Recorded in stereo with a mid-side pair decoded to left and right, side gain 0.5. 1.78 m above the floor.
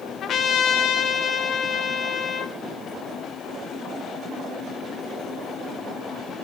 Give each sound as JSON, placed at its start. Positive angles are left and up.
{"t": 0.2, "sound": "a trumpet", "azimuth_deg": 50, "distance_m": 0.9}